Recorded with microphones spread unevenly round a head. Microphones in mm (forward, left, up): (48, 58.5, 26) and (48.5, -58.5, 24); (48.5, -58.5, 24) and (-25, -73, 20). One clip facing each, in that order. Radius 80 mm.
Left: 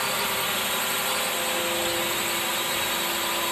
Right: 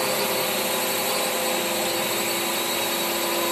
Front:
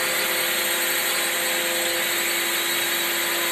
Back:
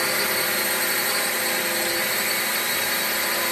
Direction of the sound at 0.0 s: 105° right.